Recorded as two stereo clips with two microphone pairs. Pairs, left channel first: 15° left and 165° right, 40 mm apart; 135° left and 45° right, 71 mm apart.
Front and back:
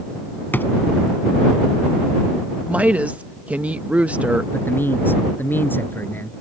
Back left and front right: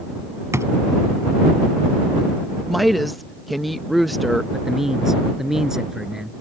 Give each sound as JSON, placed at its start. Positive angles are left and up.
{"t": 0.5, "sound": "a drawer", "azimuth_deg": -5}
{"t": 2.7, "sound": "a woman speaking", "azimuth_deg": -130}
{"t": 4.5, "sound": "a man speaking", "azimuth_deg": 40}